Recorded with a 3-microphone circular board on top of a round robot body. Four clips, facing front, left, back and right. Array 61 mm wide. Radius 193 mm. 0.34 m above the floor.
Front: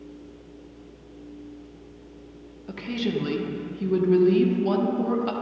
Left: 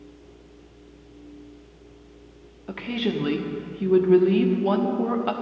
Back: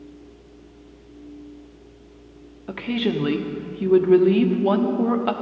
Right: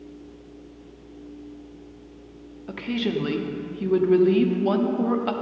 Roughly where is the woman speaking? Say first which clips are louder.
Even, back 4 dB; behind.